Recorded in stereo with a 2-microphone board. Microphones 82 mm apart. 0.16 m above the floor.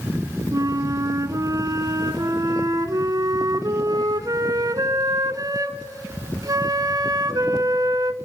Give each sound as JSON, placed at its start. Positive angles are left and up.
{"t": 0.5, "sound": "a flute", "side_deg": -45, "distance_m": 0.7}